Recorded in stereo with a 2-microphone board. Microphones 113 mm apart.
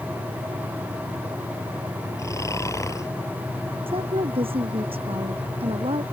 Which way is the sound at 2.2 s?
30° left (ahead or behind).